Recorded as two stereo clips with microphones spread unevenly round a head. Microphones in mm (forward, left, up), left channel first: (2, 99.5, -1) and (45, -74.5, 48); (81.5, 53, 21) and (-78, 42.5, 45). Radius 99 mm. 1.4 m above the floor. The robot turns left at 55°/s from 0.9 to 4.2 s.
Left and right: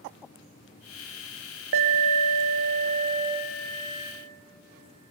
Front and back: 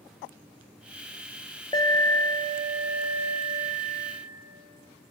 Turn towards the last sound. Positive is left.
turn(degrees=160)